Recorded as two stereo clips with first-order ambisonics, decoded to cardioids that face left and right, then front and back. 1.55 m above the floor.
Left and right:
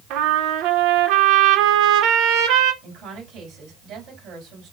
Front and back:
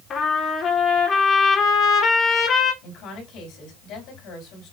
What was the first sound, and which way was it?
A trumpet, 60° right.